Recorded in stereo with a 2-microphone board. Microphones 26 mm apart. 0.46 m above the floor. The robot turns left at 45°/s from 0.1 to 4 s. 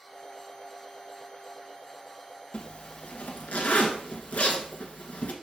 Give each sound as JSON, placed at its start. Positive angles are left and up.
{"t": 2.5, "sound": "a zipper", "side_deg": 45, "distance_m": 1.1}